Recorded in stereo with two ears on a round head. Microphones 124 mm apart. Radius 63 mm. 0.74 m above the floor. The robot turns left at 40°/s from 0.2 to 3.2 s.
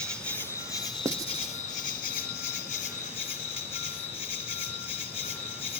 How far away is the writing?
About 0.5 m.